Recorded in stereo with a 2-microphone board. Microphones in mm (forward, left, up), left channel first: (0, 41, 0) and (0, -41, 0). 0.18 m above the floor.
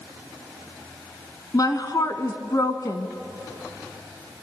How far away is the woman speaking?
About 1.4 m.